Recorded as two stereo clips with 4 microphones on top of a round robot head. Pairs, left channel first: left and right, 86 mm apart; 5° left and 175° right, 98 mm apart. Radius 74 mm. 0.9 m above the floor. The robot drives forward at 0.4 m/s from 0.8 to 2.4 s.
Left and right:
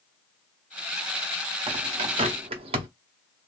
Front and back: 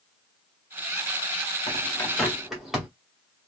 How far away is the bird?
About 0.7 m.